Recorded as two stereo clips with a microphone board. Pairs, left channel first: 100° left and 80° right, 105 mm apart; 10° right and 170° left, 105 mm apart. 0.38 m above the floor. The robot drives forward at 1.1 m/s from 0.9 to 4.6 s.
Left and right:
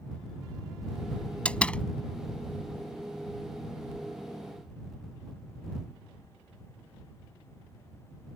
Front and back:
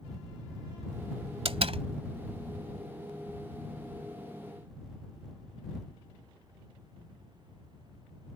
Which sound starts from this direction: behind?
A door slam, at 1.4 s.